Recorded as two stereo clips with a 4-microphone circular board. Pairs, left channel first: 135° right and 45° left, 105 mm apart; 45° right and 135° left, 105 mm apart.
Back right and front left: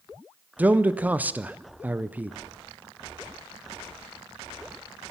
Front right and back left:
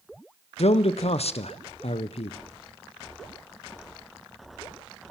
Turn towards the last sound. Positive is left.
turn(degrees=-30)